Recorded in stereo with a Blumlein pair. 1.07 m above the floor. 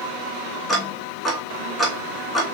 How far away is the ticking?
About 1.9 m.